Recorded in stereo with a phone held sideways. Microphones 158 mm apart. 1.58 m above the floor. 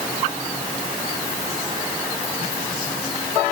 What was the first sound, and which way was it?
Only background noise.